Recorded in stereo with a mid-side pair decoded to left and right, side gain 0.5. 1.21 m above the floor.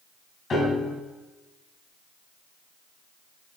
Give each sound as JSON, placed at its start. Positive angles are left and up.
{"t": 0.5, "sound": "a piano", "azimuth_deg": 40, "distance_m": 3.5}